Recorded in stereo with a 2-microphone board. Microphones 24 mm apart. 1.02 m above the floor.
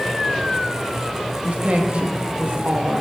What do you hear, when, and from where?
1.4 s a woman speaking: 60° right (ahead or behind), 1.7 m; by 3.0 s 70° right (ahead or behind), 1.5 m